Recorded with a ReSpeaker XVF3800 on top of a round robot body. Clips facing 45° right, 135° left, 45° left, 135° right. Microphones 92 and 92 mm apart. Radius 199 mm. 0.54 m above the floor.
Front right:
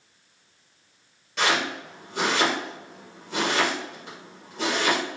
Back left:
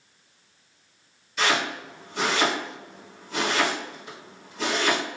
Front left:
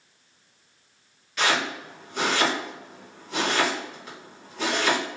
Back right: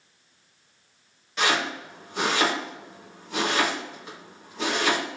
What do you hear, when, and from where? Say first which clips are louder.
1.4 s chopping: even, even; 70° right, 1.5 m